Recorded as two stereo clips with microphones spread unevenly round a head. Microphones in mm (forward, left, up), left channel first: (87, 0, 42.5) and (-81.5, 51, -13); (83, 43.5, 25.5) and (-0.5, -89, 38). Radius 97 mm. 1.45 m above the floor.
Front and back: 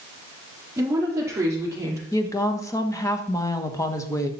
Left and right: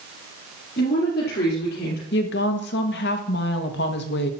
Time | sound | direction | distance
0.8 | a woman speaking | 90° left | 4 m
2.1 | a woman speaking | 55° left | 1.7 m